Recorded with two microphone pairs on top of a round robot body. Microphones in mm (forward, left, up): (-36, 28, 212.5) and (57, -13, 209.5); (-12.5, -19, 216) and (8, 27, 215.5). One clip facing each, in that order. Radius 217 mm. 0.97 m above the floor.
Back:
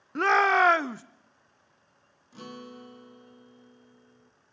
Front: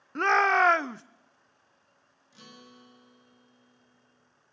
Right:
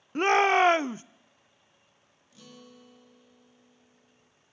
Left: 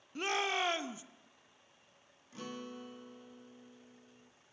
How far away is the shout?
About 0.5 m.